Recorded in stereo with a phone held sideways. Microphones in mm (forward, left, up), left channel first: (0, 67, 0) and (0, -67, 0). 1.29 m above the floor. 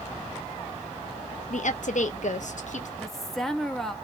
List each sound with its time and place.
1.5 s a woman speaking: 65° left (ahead or behind), 0.5 m
3.0 s a woman speaking: 5° left (ahead or behind), 0.7 m